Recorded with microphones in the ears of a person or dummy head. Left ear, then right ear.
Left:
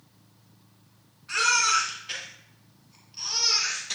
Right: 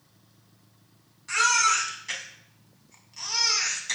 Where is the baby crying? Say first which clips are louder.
Right 1 dB; 70° right (ahead or behind), 5.5 m.